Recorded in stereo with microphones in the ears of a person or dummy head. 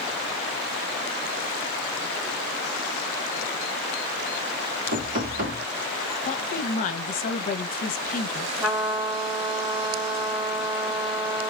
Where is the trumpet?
Centre (ahead or behind), 1.9 m.